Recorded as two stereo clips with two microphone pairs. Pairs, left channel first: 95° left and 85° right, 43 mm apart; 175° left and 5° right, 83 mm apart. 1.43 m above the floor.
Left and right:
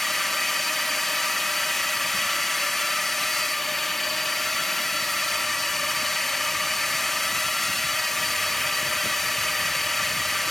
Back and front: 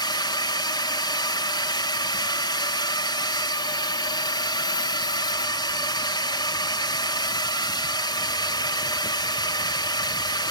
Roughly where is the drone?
Behind.